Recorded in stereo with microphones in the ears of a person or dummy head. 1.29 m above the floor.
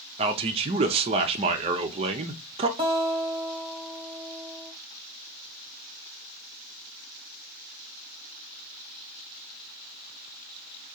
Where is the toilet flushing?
I don't hear a toilet flushing.